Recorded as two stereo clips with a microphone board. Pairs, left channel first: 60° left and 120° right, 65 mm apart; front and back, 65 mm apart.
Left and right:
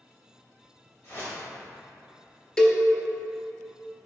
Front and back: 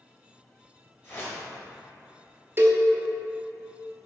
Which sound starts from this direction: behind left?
A cowbell, at 2.6 s.